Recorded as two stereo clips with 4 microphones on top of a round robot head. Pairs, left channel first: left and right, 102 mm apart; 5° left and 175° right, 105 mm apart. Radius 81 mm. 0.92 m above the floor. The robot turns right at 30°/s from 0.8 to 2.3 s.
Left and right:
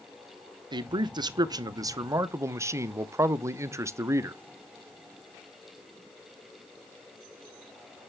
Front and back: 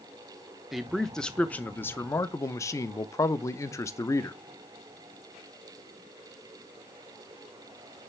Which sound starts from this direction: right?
A man speaking, at 0.7 s.